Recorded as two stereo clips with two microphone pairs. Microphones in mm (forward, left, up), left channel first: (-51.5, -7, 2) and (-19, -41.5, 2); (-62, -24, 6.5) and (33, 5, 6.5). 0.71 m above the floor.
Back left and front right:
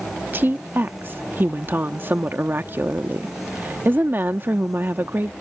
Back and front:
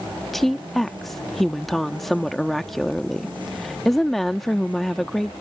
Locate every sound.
0.3 s a woman speaking: 75° right